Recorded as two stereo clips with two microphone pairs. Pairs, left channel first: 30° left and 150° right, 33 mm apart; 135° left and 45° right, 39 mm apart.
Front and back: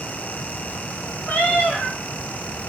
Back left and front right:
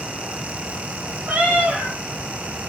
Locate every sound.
1.3 s a cat meowing: 10° right, 0.8 m